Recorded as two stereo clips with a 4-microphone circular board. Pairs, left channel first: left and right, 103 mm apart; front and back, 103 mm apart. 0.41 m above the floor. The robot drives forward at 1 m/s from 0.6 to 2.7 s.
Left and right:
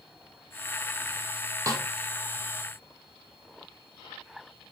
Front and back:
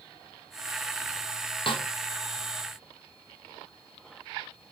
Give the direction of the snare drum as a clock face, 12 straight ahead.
1 o'clock.